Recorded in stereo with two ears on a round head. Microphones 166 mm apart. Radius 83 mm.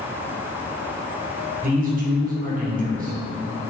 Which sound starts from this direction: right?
A man speaking, at 1.6 s.